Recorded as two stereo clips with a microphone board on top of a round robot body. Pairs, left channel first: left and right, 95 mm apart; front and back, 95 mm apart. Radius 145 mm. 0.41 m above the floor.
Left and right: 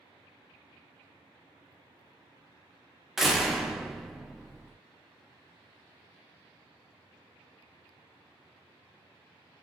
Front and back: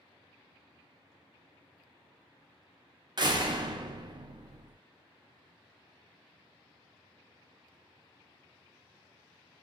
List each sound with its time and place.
3.2 s a door slam: straight behind, 0.6 m